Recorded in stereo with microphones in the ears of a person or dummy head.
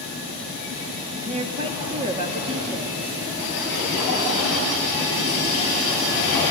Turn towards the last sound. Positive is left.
turn(degrees=-30)  # may be behind; listen again after turning